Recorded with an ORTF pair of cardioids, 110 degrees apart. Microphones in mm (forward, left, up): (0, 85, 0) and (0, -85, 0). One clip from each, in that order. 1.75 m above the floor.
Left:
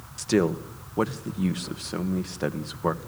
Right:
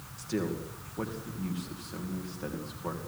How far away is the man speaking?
About 1.8 m.